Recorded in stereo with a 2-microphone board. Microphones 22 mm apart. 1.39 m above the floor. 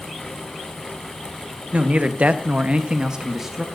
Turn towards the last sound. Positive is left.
turn(degrees=-5)  # may be behind; listen again after turning